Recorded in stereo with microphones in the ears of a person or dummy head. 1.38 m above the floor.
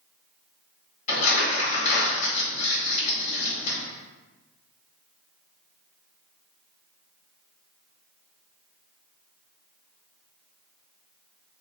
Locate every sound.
1.1 s crumpling: 40° left (ahead or behind), 2 m